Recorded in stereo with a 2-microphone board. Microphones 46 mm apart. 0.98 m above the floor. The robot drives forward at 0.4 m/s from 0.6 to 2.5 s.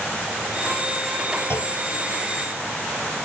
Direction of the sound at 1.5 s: 55° left (ahead or behind).